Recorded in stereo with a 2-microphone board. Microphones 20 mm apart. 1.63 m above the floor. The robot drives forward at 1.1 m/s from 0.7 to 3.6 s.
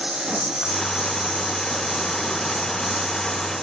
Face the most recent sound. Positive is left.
turn(degrees=-30)  # may be behind; listen again after turning